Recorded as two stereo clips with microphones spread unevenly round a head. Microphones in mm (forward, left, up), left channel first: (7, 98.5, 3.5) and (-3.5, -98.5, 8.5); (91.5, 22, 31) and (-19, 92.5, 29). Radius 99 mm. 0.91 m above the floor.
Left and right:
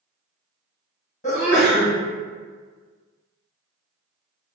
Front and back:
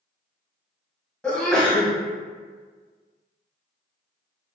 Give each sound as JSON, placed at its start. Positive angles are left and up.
{"t": 1.2, "sound": "a sneeze", "azimuth_deg": 50, "distance_m": 1.1}